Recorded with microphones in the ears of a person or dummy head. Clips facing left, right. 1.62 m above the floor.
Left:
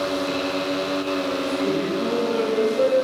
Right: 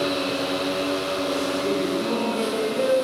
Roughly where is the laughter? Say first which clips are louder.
Left 1 dB; left.